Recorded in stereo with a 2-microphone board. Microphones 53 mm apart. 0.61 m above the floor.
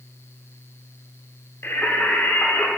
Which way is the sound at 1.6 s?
50° left (ahead or behind).